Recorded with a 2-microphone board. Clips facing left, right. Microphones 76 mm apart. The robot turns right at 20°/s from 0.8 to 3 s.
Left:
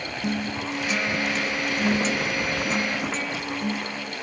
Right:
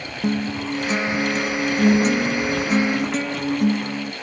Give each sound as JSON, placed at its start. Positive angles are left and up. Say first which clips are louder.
{"t": 0.2, "sound": "a guitar", "louder": "right 6 dB", "azimuth_deg": -150, "distance_m": 0.9}